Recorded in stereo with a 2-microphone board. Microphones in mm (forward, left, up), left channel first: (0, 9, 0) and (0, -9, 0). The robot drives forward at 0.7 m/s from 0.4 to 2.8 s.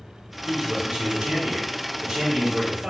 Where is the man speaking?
55° right (ahead or behind), 1.3 m; by 2.9 s 50° right (ahead or behind), 1.4 m.